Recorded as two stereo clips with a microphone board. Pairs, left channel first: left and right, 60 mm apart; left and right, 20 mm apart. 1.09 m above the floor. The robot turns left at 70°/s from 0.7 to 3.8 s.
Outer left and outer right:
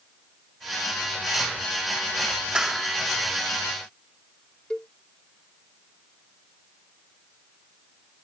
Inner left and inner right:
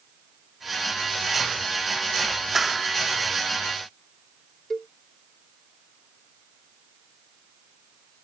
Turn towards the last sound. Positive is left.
turn(degrees=15)  # may be behind; listen again after turning